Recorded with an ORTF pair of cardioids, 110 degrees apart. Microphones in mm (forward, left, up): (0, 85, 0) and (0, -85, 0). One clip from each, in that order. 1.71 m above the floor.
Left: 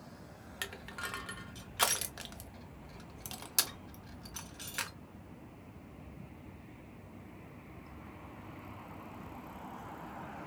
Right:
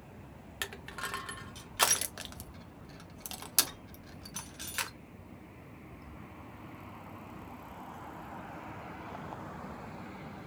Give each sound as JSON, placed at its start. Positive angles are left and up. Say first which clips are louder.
{"t": 0.6, "sound": "crushing", "louder": "right 2 dB", "azimuth_deg": -10, "distance_m": 0.8}